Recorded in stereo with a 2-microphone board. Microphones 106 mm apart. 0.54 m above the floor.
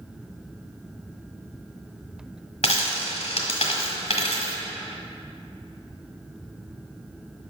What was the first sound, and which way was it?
A dropped coin, 80° left.